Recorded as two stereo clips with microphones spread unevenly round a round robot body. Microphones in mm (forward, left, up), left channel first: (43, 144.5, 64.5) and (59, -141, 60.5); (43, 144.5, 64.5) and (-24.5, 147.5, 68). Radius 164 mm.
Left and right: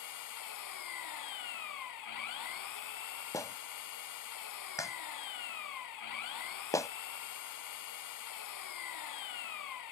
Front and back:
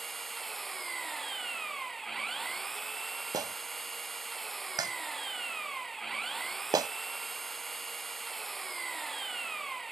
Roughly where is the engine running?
Left.